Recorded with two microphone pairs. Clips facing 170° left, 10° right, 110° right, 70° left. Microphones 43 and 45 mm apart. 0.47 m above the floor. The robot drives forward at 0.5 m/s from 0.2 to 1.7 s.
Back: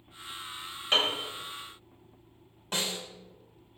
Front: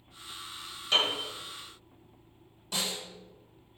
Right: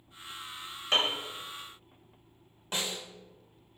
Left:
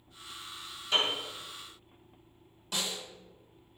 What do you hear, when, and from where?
0.9 s a piano: 135° right, 2 m
2.7 s a snare drum: 160° right, 1.2 m